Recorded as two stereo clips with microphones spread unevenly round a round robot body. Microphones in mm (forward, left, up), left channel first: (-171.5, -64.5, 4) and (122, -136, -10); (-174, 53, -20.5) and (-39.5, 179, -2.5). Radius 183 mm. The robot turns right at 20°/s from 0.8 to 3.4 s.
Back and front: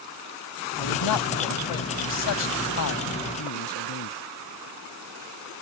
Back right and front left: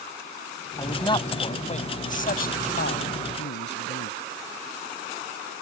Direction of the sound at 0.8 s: 155° left.